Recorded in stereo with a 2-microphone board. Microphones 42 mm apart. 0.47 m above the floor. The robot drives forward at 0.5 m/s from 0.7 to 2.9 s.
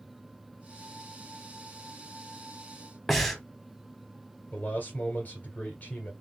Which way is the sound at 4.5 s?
35° left (ahead or behind).